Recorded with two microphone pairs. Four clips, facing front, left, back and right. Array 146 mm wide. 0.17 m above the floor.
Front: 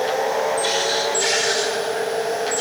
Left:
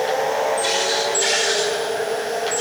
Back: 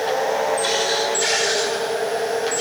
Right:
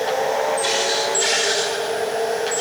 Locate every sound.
Only background noise.